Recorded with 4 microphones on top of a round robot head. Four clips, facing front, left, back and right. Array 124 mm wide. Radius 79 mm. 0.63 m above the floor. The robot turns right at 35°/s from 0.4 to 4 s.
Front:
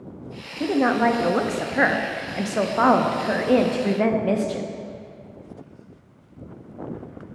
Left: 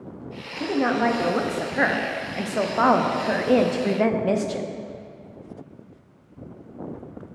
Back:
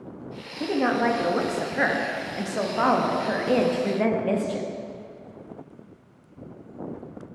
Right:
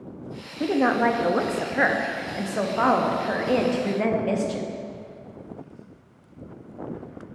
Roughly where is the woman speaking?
Ahead right.